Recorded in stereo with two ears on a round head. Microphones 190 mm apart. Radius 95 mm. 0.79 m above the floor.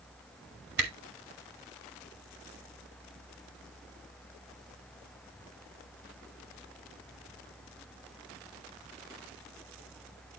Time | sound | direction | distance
0.8 | a camera shutter | 60° right (ahead or behind) | 3 m